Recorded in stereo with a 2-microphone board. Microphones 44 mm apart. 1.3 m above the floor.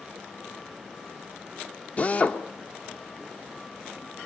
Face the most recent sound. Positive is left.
turn(degrees=35)  # may be behind; listen again after turning